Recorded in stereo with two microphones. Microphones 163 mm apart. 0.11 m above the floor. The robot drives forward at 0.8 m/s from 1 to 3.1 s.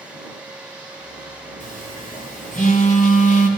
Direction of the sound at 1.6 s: 55° left (ahead or behind).